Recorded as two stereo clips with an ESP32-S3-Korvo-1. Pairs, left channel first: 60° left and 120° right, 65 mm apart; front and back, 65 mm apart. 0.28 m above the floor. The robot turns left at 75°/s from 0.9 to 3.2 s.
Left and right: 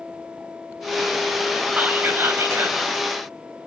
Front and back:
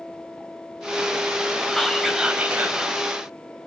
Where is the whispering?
75° right, 1.7 m; by 2.8 s 150° right, 1.7 m.